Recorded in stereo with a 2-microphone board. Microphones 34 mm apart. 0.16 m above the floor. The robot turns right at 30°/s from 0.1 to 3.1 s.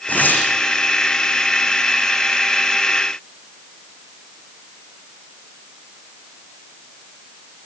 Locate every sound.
0.1 s tearing paper: 55° left (ahead or behind), 8.5 m; by 0.5 s 65° left (ahead or behind), 8.5 m